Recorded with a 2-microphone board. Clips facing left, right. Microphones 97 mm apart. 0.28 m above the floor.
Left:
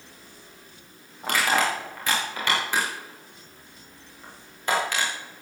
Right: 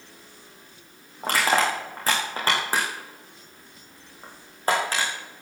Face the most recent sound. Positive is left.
turn(degrees=-40)  # may be behind; listen again after turning